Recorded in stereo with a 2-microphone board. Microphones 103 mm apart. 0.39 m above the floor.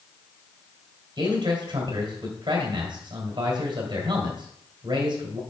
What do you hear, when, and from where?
1.2 s a man speaking: 50° right (ahead or behind), 2 m